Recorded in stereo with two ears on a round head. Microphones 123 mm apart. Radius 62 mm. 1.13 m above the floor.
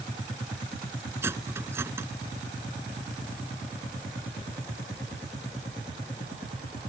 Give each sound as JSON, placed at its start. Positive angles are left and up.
{"t": 1.2, "sound": "cutlery clinking", "side_deg": -20}